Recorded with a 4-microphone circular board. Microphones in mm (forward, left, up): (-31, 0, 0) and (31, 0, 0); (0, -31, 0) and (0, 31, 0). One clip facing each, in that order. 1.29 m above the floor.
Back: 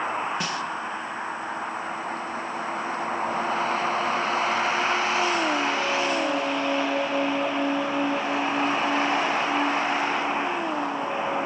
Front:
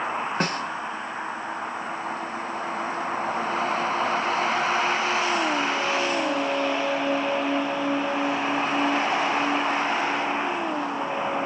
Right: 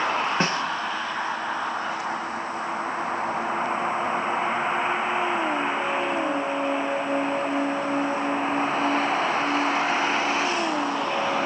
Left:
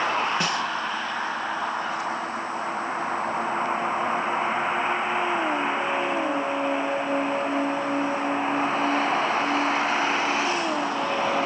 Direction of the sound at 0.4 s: 40° right.